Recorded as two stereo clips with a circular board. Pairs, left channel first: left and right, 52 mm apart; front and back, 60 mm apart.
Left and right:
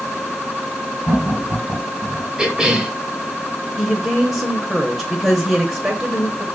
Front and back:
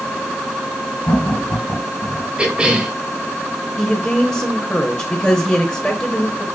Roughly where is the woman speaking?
Ahead right.